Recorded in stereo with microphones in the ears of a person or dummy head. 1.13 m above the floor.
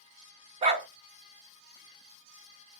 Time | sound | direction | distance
0.6 | a dog barking | 30° right (ahead or behind) | 0.9 m